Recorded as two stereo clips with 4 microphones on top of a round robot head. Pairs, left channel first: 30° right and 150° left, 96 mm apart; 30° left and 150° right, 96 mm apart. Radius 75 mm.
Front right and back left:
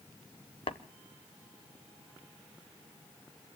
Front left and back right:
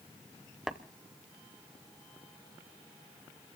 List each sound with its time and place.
0.7 s tapping: 60° right, 0.7 m